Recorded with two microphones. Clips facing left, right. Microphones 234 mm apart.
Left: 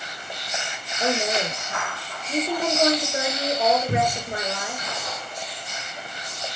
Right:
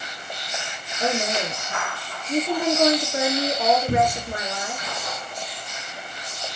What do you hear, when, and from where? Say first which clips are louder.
1.0 s a woman speaking: even; 5° left (ahead or behind), 4 m
3.9 s a cupboard door: right 2 dB; 40° right (ahead or behind), 2.5 m